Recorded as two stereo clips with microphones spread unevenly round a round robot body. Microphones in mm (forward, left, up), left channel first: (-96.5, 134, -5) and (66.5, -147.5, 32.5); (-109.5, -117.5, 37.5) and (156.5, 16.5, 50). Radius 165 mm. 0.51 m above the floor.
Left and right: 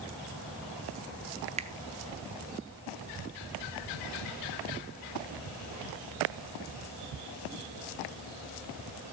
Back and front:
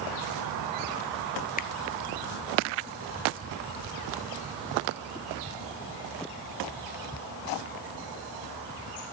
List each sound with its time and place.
1.6 s a finger snap: 125° right, 0.7 m